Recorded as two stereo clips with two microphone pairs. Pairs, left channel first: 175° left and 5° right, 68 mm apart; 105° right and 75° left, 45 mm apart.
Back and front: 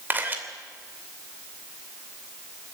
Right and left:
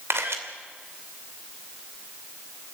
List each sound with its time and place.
0.1 s a camera shutter: 60° left, 2.5 m